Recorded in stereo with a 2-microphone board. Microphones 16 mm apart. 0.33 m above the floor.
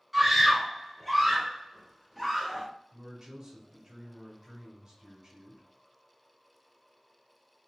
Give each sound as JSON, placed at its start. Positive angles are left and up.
{"t": 0.1, "sound": "a scream", "side_deg": 0, "distance_m": 1.2}
{"t": 2.9, "sound": "a man speaking", "side_deg": -30, "distance_m": 1.4}